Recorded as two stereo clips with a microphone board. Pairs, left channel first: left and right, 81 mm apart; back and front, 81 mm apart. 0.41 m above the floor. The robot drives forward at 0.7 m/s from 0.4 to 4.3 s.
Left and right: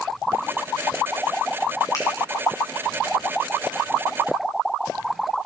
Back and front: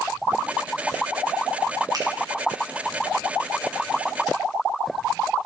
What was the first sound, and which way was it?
A finger snap, 40° left.